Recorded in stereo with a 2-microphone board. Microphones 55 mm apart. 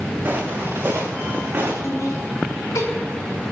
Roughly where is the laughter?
Left.